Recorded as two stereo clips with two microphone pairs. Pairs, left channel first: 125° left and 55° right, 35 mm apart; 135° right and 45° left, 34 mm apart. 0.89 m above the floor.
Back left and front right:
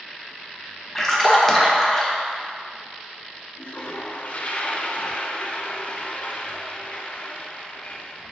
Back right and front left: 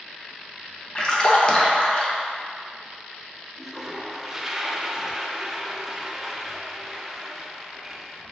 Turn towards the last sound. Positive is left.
turn(degrees=120)